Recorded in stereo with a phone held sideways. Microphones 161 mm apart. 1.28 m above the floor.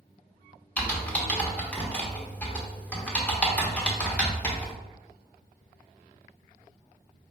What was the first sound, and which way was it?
Typing on a keyboard, 10° left (ahead or behind).